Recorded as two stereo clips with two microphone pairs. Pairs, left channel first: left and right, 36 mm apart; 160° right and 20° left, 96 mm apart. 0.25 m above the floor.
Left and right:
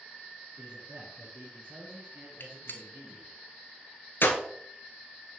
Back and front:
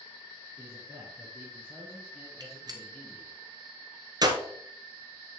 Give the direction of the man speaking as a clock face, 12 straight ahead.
1 o'clock.